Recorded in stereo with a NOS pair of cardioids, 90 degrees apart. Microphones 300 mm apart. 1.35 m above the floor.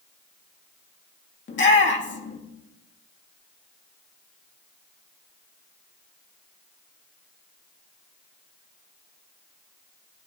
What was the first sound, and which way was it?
A shout, 40° left.